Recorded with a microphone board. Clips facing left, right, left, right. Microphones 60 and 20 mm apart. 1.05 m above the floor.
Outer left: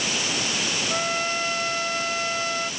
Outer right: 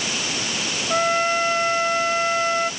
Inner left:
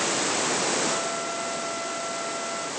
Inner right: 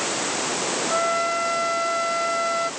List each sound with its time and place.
0.9 s a trumpet: 35° right (ahead or behind)